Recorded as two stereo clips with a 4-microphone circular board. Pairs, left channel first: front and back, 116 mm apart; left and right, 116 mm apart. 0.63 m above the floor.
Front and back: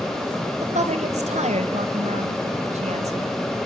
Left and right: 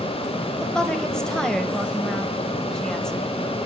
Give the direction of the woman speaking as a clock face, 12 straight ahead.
6 o'clock.